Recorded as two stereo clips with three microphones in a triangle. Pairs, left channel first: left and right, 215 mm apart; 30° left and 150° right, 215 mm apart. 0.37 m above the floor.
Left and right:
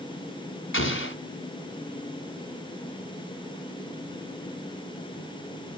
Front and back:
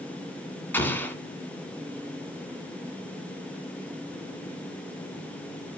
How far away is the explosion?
About 2 m.